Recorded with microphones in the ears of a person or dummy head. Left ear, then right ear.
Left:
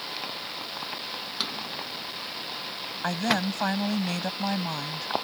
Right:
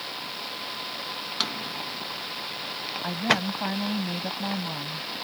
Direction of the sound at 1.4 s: 10° right (ahead or behind).